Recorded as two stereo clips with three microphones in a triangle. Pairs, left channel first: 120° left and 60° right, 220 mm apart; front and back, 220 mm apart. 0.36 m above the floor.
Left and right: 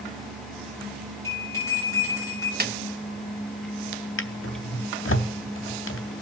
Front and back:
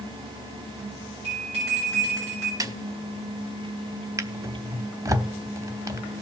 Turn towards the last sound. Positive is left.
turn(degrees=105)